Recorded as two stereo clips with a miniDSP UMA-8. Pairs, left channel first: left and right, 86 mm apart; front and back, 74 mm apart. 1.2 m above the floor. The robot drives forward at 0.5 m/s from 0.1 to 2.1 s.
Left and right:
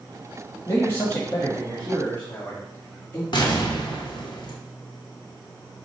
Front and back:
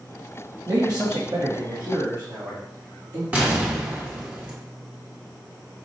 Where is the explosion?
115° left, 0.9 m.